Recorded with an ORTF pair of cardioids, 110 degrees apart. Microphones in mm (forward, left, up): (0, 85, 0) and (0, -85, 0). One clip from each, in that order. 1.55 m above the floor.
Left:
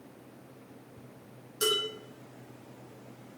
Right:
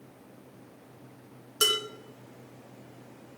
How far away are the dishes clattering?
About 1.8 m.